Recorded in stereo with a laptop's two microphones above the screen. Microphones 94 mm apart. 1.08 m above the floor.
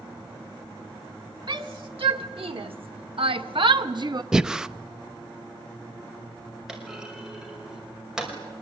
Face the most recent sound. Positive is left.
turn(degrees=-5)  # may be behind; listen again after turning